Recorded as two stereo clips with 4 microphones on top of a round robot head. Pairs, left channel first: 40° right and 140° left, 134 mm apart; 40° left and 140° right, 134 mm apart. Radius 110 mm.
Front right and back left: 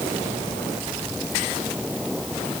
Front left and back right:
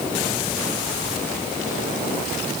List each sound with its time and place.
Only background noise.